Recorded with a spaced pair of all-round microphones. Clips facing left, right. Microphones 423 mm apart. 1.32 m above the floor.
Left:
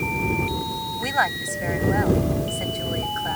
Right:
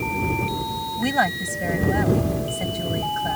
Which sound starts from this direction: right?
A woman speaking, at 1.0 s.